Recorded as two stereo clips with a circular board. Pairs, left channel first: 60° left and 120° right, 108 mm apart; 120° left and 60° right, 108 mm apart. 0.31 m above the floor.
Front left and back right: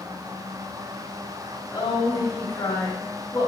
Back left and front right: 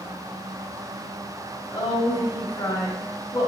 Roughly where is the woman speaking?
Left.